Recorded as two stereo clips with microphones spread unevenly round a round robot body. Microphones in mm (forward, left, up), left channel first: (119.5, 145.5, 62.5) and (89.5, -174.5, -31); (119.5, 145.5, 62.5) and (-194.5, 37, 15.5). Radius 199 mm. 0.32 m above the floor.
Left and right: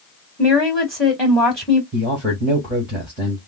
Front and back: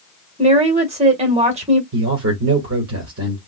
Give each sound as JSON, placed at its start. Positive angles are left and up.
{"t": 0.4, "sound": "a woman speaking", "azimuth_deg": -150, "distance_m": 1.3}
{"t": 1.9, "sound": "a man speaking", "azimuth_deg": -165, "distance_m": 1.4}